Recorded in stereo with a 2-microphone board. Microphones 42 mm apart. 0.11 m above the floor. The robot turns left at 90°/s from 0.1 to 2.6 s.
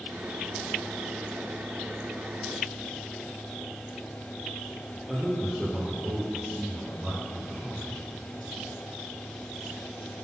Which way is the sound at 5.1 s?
5° right (ahead or behind).